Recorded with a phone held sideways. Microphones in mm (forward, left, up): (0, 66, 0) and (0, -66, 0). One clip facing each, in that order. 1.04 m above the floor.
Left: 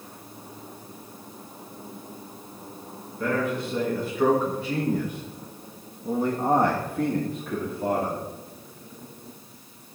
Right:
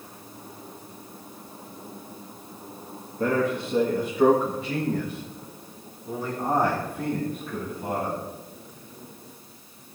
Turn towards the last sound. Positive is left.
turn(degrees=80)